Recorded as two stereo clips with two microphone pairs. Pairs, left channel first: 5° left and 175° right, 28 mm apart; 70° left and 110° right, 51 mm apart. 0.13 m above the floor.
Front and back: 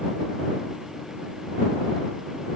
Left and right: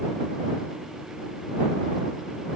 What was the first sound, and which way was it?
Only background noise.